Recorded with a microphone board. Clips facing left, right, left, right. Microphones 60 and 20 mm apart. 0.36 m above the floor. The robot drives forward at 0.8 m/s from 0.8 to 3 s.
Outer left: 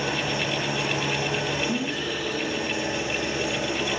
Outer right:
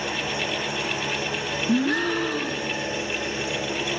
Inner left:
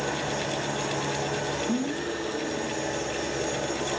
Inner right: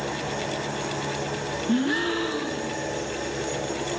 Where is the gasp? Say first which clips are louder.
Outer right 6 dB, inner right 5 dB; 65° right (ahead or behind), 0.8 m; by 2.8 s 30° right (ahead or behind), 1.4 m.